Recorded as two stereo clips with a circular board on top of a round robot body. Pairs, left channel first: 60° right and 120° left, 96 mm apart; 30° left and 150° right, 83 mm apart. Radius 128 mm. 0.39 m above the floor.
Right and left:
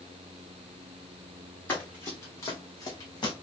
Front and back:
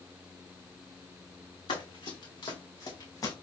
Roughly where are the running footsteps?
Ahead.